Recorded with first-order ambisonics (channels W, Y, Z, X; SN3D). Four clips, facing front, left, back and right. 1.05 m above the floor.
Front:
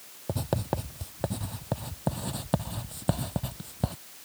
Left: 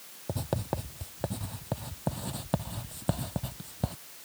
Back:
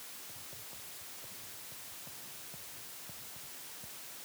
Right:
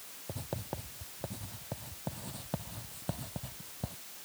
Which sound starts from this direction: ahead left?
Writing, at 0.3 s.